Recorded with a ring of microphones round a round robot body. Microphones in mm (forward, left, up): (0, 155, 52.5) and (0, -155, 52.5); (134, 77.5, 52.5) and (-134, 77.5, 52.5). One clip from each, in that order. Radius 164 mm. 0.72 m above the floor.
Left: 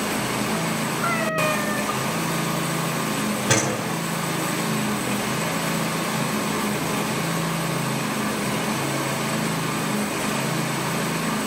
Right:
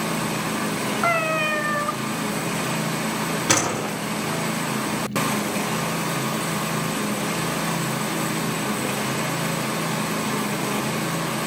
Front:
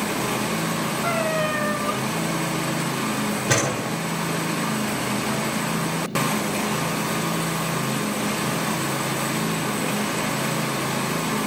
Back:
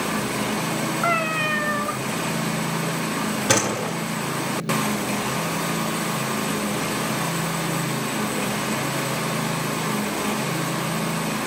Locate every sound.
1.0 s a cat meowing: 145° right, 0.8 m
3.5 s a door slam: 135° right, 6 m